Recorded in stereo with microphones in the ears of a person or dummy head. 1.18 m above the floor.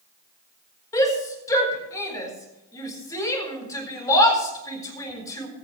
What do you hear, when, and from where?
0.9 s a shout: 20° left (ahead or behind), 4.5 m